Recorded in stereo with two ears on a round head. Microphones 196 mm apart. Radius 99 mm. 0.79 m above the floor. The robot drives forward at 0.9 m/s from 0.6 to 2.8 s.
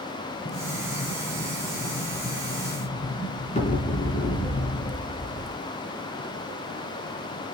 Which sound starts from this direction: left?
An explosion, at 0.5 s.